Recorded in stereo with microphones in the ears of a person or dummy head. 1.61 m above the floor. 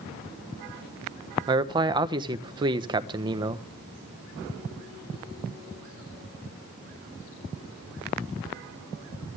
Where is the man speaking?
25° right (ahead or behind), 1.1 m.